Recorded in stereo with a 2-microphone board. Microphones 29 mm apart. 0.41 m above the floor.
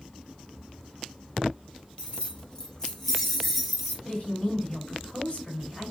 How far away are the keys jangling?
About 1.0 m.